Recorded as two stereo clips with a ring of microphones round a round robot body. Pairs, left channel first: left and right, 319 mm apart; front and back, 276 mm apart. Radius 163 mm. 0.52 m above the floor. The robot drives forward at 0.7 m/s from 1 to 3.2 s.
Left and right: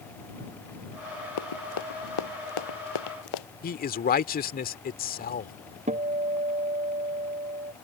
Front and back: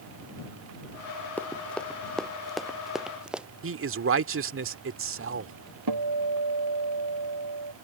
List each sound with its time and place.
1.4 s running footsteps: 85° left; by 3.5 s 95° left
3.6 s a man speaking: 150° left
5.9 s a guitar: 160° right